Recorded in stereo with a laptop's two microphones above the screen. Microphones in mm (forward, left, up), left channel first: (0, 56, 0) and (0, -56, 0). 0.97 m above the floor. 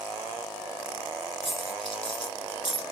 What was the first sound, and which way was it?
A dropped coin, 50° left (ahead or behind).